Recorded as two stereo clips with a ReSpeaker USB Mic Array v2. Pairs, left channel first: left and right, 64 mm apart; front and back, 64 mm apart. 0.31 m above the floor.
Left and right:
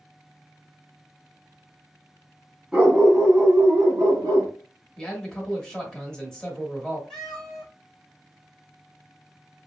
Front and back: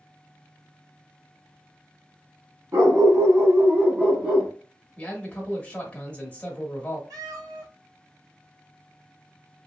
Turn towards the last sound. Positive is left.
turn(degrees=175)